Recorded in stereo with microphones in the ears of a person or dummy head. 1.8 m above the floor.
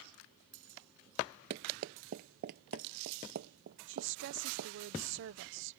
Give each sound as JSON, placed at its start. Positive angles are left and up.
{"t": 1.5, "sound": "running footsteps", "side_deg": -30}
{"t": 3.9, "sound": "a woman speaking", "side_deg": -65}